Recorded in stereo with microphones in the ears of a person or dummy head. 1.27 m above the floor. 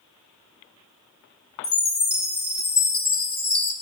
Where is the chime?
30° left (ahead or behind), 2.5 m.